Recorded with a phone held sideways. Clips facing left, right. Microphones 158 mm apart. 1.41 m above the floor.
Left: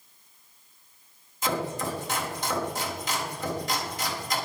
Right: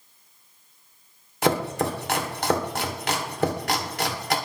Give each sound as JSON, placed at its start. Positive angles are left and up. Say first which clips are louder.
{"t": 1.4, "sound": "chopping", "louder": "right 6 dB", "side_deg": -70, "distance_m": 2.0}